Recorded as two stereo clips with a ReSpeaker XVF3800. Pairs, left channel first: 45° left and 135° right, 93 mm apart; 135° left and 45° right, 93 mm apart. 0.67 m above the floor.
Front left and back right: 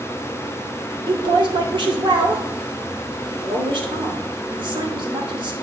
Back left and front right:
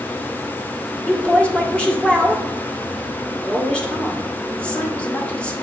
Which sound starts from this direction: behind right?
A woman speaking, at 1.1 s.